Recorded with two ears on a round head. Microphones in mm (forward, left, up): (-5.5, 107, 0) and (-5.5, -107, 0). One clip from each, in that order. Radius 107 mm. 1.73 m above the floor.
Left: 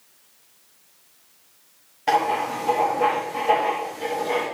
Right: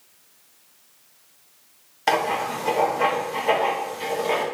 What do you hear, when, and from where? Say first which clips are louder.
2.1 s writing: left 1 dB; 45° right (ahead or behind), 3 m